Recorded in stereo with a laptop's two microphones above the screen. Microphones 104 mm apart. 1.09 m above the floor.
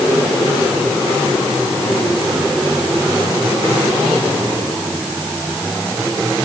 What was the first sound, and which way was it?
Only background noise.